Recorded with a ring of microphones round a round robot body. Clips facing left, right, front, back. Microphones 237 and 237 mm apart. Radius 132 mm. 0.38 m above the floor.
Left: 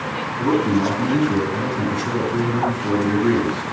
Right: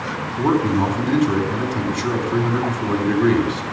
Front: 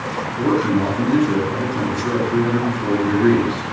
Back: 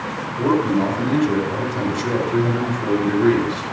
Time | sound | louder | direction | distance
0.4 | a man speaking | even, even | 85° right | 4 m